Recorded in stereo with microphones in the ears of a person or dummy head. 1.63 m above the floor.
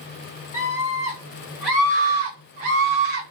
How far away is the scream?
About 1.5 m.